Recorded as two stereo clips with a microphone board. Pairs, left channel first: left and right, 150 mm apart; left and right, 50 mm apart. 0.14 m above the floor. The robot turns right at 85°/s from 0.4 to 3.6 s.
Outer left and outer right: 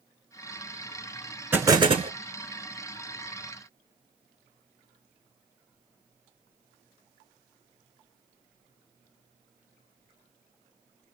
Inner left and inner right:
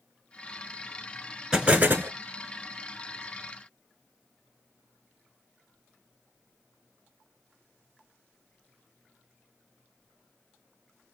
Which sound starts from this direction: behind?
An explosion, at 1.5 s.